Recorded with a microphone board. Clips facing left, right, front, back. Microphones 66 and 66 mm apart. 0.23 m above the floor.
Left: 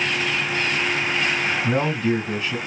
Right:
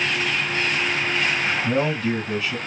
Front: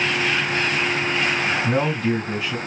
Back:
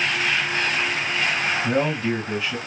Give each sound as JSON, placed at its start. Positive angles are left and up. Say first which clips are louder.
{"t": 1.6, "sound": "a man speaking", "louder": "left 1 dB, front 1 dB", "azimuth_deg": 55, "distance_m": 2.0}